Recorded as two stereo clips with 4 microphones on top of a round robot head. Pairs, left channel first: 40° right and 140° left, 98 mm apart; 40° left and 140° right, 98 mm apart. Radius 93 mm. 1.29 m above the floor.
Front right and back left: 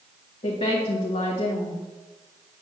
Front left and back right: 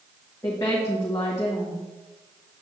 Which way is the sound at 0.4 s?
20° right.